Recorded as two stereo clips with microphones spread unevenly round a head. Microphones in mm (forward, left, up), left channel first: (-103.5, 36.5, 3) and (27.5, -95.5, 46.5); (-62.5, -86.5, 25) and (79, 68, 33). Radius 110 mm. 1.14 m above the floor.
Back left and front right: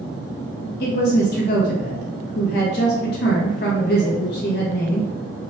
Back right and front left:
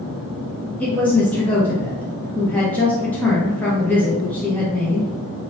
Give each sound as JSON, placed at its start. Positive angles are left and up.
{"t": 0.8, "sound": "a woman speaking", "azimuth_deg": 145, "distance_m": 1.0}